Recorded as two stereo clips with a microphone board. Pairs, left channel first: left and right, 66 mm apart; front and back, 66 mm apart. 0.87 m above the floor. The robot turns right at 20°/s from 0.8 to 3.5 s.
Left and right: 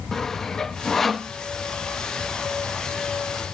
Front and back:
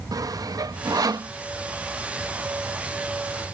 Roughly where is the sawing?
Behind.